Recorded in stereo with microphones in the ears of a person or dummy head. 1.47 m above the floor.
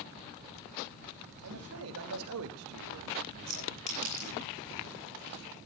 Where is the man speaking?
80° right, 3 m; by 4.5 s 60° right (ahead or behind), 0.9 m.